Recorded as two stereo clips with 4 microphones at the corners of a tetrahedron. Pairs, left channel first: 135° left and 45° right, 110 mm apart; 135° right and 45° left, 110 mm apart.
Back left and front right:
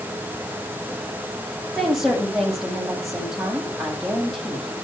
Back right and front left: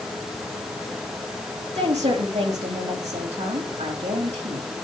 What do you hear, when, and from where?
1.8 s a woman speaking: 45° left, 8.5 m